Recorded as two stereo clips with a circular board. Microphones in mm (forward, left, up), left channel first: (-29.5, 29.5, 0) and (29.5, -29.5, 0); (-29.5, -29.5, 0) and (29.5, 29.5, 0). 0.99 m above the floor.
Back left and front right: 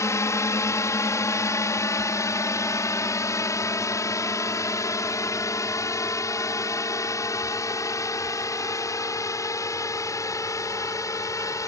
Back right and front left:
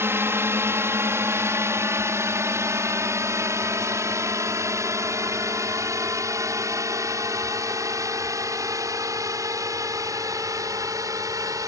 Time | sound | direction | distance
0.0 | a drone | 95° left | ?